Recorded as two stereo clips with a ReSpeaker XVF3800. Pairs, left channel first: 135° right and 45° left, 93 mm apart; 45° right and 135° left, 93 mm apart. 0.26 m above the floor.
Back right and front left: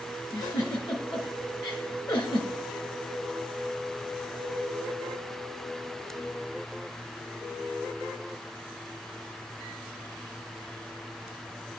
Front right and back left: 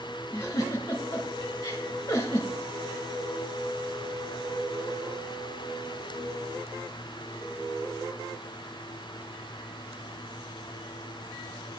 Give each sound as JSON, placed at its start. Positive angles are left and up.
{"t": 0.3, "sound": "a giggle", "azimuth_deg": -100, "distance_m": 1.6}